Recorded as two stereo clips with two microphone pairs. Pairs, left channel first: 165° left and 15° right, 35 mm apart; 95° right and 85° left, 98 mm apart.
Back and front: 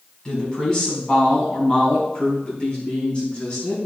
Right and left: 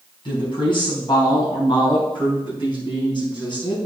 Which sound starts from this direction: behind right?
A woman speaking, at 0.2 s.